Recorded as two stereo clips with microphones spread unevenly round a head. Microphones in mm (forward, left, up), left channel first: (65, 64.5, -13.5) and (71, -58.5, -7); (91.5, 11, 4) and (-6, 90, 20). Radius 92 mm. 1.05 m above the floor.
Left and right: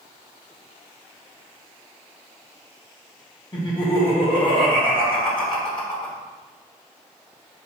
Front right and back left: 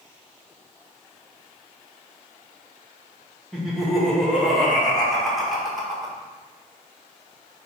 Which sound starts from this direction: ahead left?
Laughter, at 3.5 s.